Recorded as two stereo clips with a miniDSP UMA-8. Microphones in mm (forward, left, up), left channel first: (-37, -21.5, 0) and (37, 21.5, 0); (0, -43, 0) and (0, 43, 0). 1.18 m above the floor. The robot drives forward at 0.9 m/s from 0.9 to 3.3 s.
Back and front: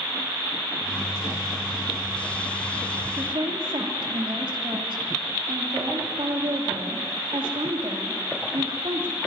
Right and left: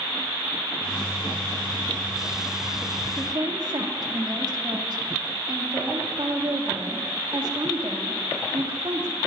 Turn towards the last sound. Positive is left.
turn(degrees=55)